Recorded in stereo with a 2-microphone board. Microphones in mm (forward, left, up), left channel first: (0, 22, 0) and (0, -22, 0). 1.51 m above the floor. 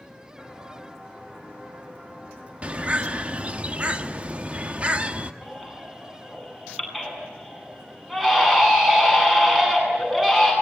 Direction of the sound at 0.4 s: 10° right (ahead or behind).